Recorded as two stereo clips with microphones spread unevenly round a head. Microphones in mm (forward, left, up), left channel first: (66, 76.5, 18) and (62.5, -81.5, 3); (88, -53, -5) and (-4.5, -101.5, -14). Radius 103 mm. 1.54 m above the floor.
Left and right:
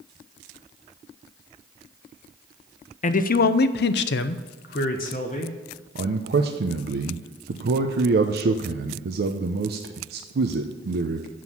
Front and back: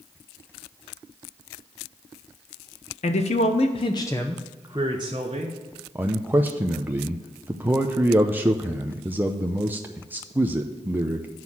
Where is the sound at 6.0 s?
80° right, 0.7 m.